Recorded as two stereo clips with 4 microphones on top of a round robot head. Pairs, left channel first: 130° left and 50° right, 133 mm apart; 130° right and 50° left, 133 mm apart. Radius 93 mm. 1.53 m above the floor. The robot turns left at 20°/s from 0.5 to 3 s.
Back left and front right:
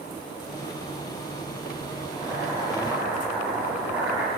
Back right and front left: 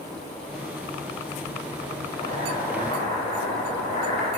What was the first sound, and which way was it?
Boiling, 105° right.